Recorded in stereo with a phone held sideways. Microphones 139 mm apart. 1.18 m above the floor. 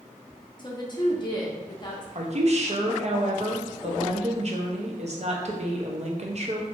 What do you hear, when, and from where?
0.6 s a woman speaking: 30° left (ahead or behind), 0.7 m
2.1 s a woman speaking: 55° right (ahead or behind), 0.6 m